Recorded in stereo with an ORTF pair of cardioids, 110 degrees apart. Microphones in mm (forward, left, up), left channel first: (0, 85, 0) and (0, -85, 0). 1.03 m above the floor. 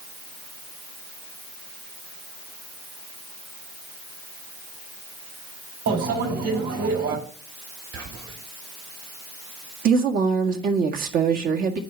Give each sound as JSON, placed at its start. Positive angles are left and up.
{"t": 5.9, "sound": "a microwave", "azimuth_deg": -65, "distance_m": 6.0}
{"t": 7.9, "sound": "whispering", "azimuth_deg": -65, "distance_m": 6.0}
{"t": 9.8, "sound": "a woman speaking", "azimuth_deg": -60, "distance_m": 1.8}